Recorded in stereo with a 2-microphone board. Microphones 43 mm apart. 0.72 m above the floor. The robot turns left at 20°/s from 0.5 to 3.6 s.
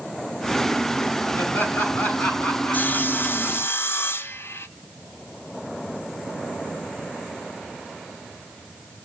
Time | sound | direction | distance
1.4 | laughter | 55° left | 6.5 m
2.7 | sawing | 50° left (ahead or behind) | 0.6 m